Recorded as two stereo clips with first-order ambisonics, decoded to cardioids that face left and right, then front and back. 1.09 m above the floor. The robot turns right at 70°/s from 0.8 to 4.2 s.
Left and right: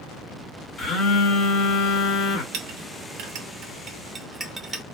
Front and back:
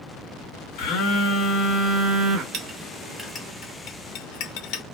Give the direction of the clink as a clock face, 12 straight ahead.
4 o'clock.